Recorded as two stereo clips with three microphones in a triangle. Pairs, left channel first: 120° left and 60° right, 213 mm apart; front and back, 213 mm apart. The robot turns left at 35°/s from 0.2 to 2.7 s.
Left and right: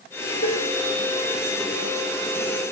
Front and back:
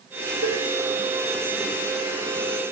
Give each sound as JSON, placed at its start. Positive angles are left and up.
{"t": 0.4, "sound": "dishes clattering", "azimuth_deg": 155, "distance_m": 1.7}